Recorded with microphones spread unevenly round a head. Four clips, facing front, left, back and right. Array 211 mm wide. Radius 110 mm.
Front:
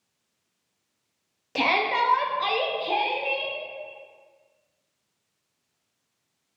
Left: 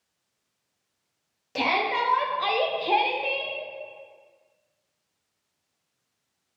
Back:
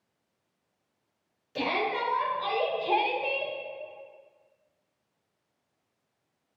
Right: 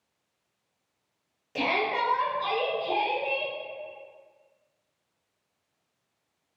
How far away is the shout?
About 1.1 m.